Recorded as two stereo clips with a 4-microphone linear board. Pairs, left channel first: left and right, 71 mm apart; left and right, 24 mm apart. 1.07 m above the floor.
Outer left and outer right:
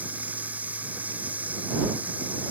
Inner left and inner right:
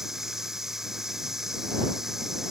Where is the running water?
20° right (ahead or behind).